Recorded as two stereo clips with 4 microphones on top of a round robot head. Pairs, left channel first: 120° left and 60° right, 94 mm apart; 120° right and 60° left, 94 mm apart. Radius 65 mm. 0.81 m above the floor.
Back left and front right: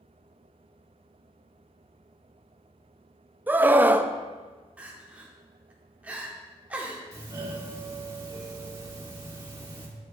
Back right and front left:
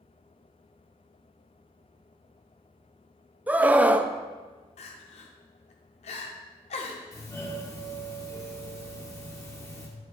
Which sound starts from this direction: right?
A doorbell, at 7.1 s.